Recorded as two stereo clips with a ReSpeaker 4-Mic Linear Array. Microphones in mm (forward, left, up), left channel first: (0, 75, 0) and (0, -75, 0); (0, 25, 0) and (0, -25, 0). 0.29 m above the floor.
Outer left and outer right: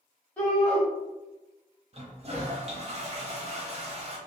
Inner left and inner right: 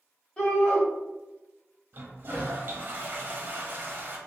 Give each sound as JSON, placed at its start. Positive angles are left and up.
{"t": 0.4, "sound": "a shout", "side_deg": 10, "distance_m": 1.6}
{"t": 1.9, "sound": "a toilet flushing", "side_deg": -45, "distance_m": 0.7}